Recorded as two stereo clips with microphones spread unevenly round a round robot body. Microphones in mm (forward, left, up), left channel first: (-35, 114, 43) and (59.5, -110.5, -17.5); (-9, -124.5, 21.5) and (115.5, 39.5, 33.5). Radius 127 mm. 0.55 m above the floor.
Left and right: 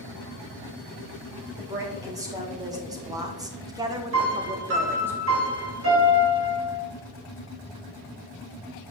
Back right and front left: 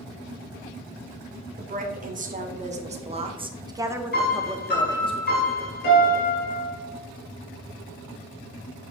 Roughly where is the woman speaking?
Ahead.